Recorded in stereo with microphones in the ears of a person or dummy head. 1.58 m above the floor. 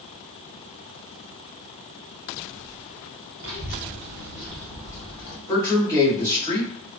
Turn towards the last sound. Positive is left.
turn(degrees=25)  # may be behind; listen again after turning